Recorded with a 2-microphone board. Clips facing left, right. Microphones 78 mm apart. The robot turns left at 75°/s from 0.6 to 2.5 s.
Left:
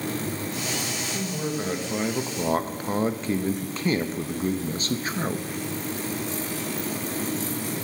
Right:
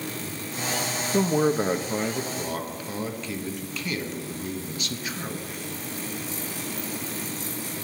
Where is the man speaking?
115° right, 0.8 m; by 5.5 s 145° left, 0.8 m.